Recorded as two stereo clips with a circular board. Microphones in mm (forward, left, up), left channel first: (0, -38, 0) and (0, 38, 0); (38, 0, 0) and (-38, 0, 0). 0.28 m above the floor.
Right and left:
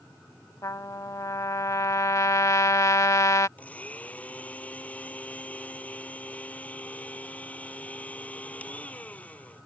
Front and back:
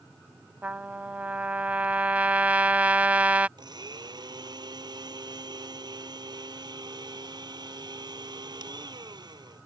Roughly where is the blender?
Behind.